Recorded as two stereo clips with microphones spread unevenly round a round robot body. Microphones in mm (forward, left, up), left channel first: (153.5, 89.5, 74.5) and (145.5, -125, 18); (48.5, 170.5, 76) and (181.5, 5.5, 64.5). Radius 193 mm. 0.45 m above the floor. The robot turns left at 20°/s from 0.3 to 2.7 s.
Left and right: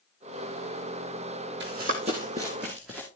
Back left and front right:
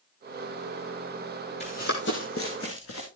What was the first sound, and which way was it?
Running footsteps, 160° right.